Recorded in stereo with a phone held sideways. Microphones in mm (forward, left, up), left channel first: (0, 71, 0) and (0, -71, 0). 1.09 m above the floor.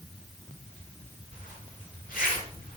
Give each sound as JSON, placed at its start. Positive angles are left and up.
{"t": 1.3, "sound": "a zipper", "side_deg": 70, "distance_m": 6.0}